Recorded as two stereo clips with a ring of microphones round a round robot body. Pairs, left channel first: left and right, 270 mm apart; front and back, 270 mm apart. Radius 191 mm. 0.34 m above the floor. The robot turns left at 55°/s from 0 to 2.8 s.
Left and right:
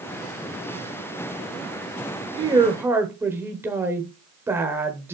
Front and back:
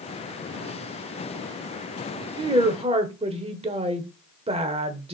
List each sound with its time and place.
2.4 s a woman speaking: 135° right, 1.1 m; by 5.2 s 155° right, 1.1 m